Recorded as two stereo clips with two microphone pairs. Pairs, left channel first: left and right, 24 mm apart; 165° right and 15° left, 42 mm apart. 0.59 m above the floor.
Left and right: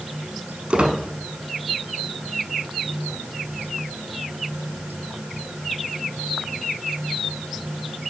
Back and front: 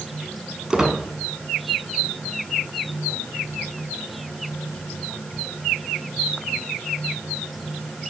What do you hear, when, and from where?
0.7 s a squeak: 60° right, 0.8 m